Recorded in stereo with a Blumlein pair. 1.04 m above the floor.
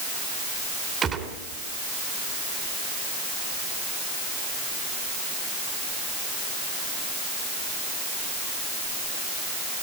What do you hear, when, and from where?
1.0 s a gunshot: 20° right, 3 m